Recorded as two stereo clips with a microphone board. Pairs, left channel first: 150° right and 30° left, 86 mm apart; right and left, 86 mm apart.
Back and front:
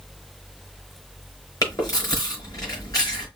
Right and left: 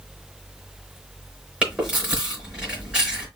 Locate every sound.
1.6 s chewing: 165° left, 5 m